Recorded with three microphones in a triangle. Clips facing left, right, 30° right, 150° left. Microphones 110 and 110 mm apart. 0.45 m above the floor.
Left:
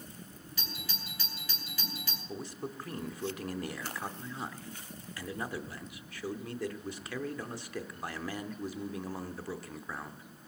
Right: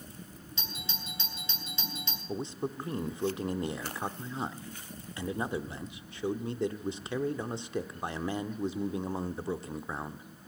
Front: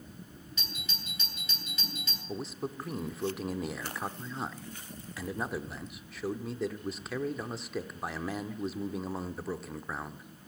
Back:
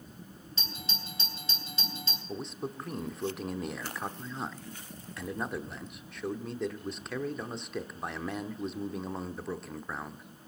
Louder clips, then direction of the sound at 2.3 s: Right 6 dB, front 1 dB; 115° right.